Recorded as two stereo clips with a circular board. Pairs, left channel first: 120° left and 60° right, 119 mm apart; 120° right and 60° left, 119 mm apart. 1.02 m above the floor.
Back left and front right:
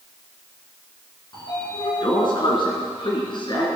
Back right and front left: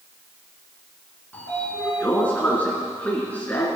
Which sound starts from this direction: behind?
A sliding door, at 1.3 s.